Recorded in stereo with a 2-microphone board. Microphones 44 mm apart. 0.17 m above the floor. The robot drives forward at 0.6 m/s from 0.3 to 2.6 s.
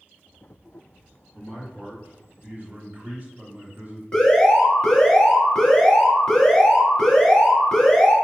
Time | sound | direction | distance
1.3 | a man speaking | 45° right (ahead or behind) | 2 m
4.1 | an alarm | 5° left (ahead or behind) | 2 m